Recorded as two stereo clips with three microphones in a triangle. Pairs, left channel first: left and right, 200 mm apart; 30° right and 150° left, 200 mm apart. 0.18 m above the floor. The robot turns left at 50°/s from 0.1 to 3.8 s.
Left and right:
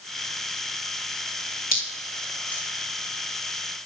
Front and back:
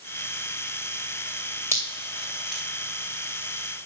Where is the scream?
I don't hear a scream.